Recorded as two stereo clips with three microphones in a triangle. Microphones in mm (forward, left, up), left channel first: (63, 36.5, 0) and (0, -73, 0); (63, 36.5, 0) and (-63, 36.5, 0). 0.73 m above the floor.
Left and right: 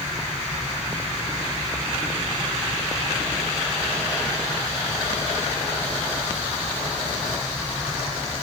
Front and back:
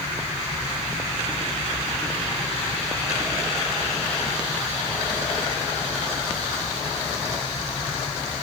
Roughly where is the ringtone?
No ringtone in this recording.